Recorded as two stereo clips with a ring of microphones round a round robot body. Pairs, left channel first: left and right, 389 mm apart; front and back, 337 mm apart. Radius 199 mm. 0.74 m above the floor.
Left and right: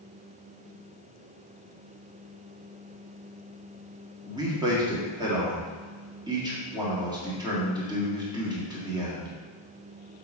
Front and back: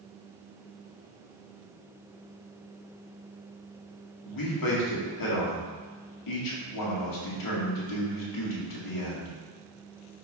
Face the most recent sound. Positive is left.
turn(degrees=-10)